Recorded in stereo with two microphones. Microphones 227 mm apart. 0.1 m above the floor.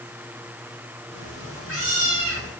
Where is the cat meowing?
75° left (ahead or behind), 5.5 m.